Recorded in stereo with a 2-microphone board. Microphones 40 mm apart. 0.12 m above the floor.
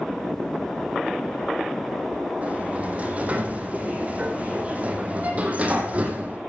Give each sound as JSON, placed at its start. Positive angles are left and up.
{"t": 2.4, "sound": "a sliding door", "side_deg": -35, "distance_m": 4.0}